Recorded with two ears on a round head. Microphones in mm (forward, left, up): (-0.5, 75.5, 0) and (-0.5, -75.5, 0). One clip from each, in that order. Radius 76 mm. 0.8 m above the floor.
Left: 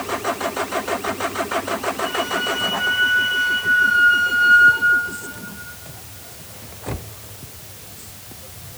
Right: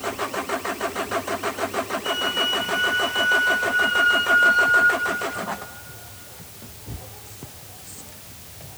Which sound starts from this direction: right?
A flute, at 2.0 s.